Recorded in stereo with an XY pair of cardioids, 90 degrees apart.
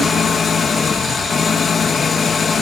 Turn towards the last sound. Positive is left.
turn(degrees=45)